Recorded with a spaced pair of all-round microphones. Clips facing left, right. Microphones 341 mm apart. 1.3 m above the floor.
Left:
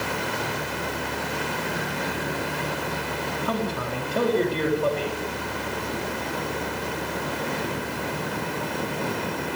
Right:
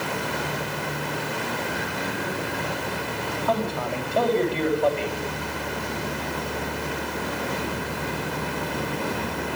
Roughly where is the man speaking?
Left.